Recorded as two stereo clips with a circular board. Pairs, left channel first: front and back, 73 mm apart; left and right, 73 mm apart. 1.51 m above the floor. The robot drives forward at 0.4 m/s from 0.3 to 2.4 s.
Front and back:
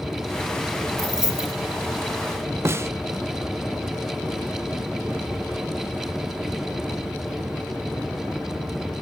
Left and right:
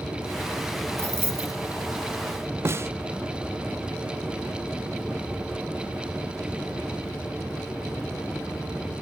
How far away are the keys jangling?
About 1.2 m.